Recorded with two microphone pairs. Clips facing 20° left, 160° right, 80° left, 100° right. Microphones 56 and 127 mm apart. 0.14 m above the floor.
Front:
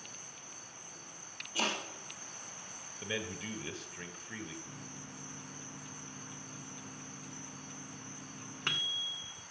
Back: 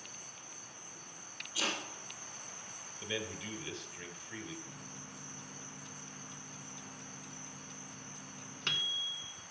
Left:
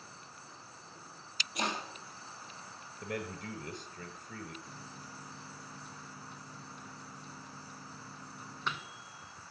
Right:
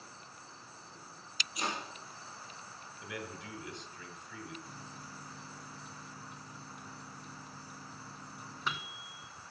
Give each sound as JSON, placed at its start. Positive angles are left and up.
{"t": 1.6, "sound": "chopping", "azimuth_deg": 55, "distance_m": 4.0}
{"t": 3.0, "sound": "a man speaking", "azimuth_deg": 75, "distance_m": 1.6}
{"t": 4.7, "sound": "a microwave", "azimuth_deg": -20, "distance_m": 0.9}